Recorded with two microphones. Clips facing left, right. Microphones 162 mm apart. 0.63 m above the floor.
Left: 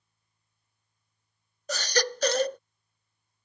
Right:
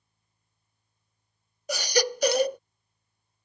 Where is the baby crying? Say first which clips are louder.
Right 3 dB; 10° right (ahead or behind).